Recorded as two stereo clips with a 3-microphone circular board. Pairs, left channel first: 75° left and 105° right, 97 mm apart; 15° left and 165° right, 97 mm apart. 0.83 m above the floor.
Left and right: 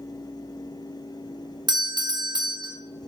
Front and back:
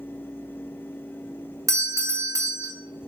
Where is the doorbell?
120° right, 1.7 m.